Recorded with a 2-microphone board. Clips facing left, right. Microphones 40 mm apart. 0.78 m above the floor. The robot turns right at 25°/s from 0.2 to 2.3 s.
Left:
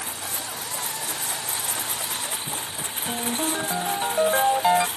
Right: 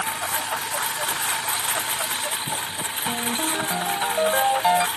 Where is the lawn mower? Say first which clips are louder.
Right 7 dB; 80° right; by 5.0 s 30° right.